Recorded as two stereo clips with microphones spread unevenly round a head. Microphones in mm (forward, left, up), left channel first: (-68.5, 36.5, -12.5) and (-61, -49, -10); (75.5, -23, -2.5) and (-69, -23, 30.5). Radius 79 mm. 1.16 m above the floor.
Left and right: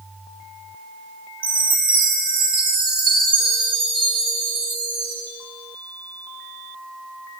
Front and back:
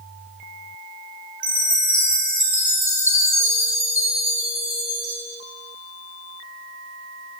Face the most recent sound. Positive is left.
turn(degrees=-105)